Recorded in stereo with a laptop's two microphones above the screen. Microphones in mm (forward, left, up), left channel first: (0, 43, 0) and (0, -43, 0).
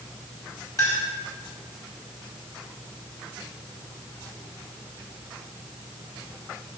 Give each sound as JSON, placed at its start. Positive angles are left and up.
{"t": 0.8, "sound": "a clink", "side_deg": 40, "distance_m": 4.0}